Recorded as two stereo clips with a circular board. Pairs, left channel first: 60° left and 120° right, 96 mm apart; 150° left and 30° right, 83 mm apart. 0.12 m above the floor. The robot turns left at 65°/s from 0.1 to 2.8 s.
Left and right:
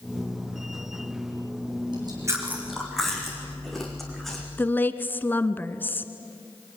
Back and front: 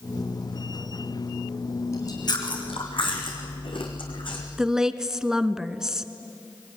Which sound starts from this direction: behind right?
Chewing, at 1.9 s.